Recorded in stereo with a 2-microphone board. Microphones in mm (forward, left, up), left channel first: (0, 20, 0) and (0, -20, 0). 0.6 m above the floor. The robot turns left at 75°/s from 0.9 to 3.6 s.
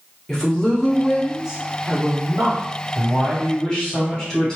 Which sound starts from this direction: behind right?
A man speaking, at 3.0 s.